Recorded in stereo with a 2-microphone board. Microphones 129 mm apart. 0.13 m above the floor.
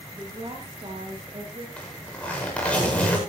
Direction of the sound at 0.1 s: 40° right (ahead or behind).